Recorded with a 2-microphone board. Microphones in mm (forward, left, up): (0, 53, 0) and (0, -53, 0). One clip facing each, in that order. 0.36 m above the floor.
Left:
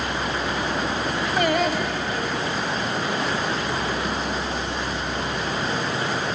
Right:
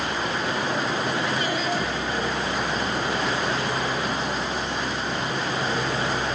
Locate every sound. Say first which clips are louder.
1.4 s singing: left 4 dB; 60° left (ahead or behind), 3 m